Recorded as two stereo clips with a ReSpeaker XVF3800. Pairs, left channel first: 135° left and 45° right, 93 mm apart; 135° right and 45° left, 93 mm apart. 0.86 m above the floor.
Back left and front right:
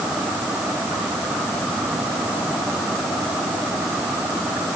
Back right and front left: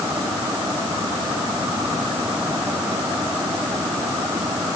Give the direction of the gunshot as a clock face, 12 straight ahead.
I don't hear a gunshot.